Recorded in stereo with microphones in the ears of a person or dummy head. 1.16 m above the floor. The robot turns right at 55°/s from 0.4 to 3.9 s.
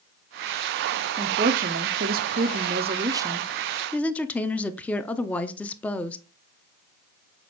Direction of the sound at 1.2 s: 140° right.